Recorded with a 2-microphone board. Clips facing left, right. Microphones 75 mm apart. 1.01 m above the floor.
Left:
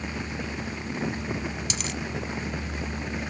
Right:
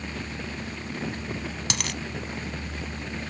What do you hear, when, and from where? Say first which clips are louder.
1.7 s a dropped coin: right 1 dB; 70° right (ahead or behind)